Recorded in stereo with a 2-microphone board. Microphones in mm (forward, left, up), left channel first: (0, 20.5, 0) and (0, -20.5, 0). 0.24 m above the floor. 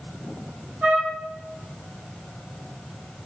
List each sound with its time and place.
0.8 s a trumpet: 50° right (ahead or behind), 6.5 m